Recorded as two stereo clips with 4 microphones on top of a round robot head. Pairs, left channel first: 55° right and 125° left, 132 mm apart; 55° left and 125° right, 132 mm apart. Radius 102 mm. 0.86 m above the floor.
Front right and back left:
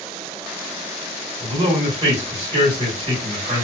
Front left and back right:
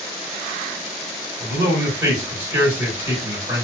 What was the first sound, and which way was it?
A man speaking, straight behind.